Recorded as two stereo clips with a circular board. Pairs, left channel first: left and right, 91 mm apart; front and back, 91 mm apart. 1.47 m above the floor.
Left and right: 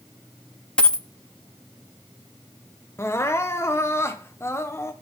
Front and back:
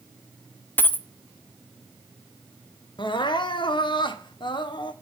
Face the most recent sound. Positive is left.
turn(degrees=30)